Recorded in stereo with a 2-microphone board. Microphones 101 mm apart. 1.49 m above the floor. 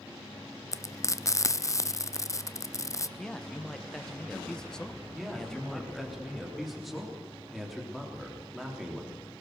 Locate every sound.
0.7 s frying: 30° left (ahead or behind), 0.5 m
3.2 s a man speaking: 5° left (ahead or behind), 1.3 m
5.1 s a man speaking: centre (ahead or behind), 3.5 m